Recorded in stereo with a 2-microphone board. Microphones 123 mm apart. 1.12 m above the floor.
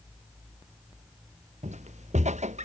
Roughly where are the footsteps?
Right.